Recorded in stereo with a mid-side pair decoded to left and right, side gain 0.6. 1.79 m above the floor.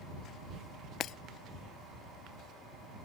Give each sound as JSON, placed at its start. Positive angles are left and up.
{"t": 1.0, "sound": "breaking glass", "azimuth_deg": 55}